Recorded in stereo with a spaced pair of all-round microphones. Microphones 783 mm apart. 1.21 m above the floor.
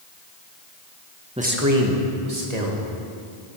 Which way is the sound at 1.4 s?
5° right (ahead or behind).